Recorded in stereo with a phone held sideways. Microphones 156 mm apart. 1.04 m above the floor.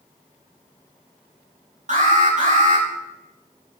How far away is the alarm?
About 7.5 m.